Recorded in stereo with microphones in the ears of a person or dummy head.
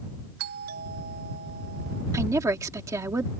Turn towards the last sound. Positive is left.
turn(degrees=-15)  # may be behind; listen again after turning